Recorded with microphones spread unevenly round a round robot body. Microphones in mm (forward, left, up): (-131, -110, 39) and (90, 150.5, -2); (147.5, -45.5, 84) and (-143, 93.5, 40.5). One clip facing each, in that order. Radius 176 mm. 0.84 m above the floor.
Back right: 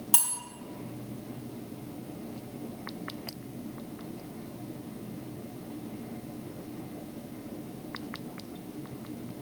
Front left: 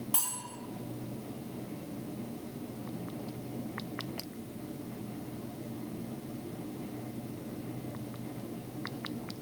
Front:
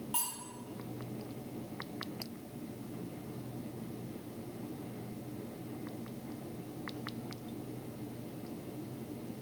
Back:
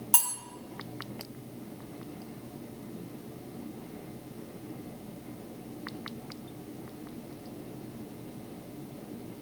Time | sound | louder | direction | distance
0.1 | cutlery clinking | even, back 3 dB | straight behind | 0.8 m